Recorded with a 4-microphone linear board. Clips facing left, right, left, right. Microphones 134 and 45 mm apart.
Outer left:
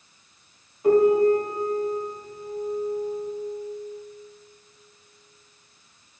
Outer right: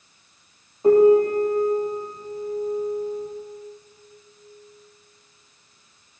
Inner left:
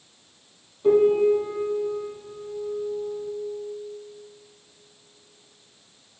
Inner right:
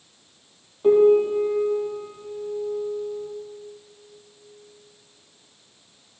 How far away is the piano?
About 3 m.